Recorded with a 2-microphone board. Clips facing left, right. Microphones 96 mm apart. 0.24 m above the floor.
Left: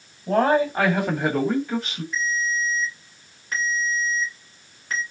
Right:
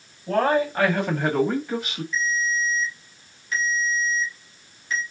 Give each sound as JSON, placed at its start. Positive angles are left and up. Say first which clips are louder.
{"t": 0.3, "sound": "a man speaking", "louder": "left 2 dB", "side_deg": 20, "distance_m": 1.9}
{"t": 2.1, "sound": "a ringtone", "louder": "even", "side_deg": 45, "distance_m": 2.5}